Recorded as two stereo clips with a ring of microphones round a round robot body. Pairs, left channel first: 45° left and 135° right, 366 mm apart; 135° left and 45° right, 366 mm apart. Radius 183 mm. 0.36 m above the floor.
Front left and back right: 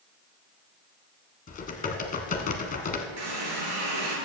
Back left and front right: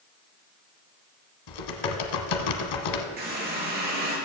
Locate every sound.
1.5 s typing on a keyboard: 115° left, 1.3 m
3.2 s a running tap: 110° right, 4 m